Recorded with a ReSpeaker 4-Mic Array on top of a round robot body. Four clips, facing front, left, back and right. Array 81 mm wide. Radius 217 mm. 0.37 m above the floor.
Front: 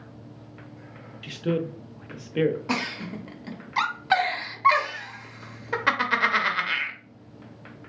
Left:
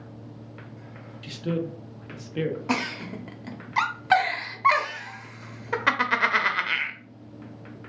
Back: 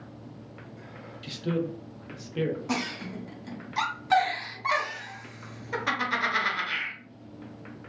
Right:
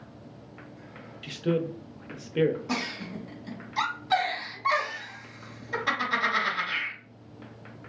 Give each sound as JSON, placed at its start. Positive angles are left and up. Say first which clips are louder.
{"t": 1.2, "sound": "a man speaking", "louder": "right 2 dB, front 3 dB", "azimuth_deg": -20, "distance_m": 0.9}
{"t": 2.7, "sound": "a giggle", "louder": "left 4 dB, front 2 dB", "azimuth_deg": 65, "distance_m": 1.1}